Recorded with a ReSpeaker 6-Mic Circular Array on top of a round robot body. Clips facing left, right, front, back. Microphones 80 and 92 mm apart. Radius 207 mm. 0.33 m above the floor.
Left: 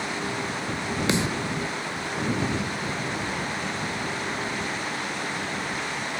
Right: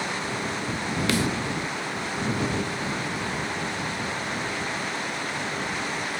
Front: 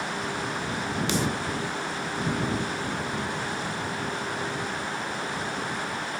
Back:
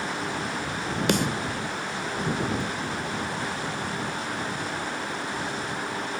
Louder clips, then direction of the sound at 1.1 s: Even, back 4 dB; 155° left.